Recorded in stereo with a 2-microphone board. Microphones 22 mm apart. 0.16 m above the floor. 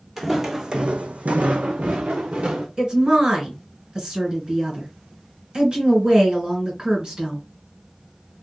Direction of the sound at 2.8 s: 35° right (ahead or behind).